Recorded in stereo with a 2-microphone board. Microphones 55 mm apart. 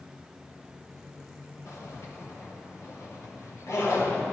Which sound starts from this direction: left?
A zipper, at 1.6 s.